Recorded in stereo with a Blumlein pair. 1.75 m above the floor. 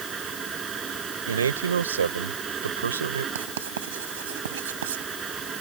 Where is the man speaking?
70° right.